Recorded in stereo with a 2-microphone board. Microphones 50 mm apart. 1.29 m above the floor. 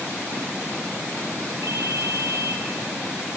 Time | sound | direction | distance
1.6 | a ringtone | 70° right (ahead or behind) | 2 m